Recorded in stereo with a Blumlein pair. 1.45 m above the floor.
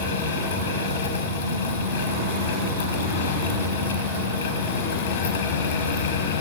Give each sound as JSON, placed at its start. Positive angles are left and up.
{"t": 0.0, "sound": "a fan", "azimuth_deg": 60, "distance_m": 0.9}